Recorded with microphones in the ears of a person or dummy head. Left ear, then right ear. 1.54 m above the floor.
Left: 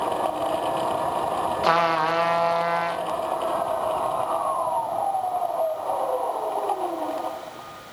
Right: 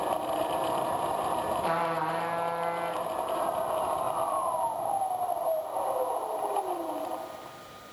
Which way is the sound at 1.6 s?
40° left (ahead or behind).